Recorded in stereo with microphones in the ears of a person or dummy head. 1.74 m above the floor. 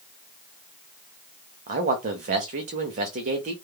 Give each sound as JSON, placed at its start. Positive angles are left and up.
{"t": 1.7, "sound": "a man speaking", "side_deg": -35, "distance_m": 0.6}